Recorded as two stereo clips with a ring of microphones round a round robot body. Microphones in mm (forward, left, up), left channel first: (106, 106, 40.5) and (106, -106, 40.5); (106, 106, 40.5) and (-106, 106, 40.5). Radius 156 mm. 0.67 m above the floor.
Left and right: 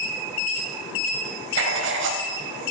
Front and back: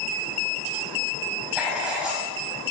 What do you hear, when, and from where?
1.6 s writing: 95° right, 0.7 m